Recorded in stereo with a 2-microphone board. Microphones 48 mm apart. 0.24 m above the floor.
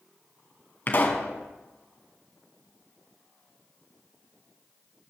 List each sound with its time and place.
0.9 s a pop: 40° left (ahead or behind), 2 m